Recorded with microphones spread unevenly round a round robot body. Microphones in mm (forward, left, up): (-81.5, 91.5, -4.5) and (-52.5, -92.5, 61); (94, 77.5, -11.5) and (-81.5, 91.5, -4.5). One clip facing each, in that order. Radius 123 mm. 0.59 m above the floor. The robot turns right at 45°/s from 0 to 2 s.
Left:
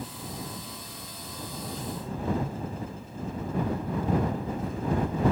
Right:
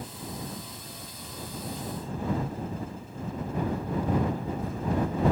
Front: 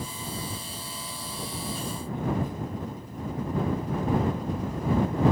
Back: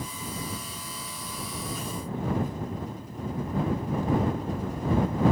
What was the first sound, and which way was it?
Only background noise.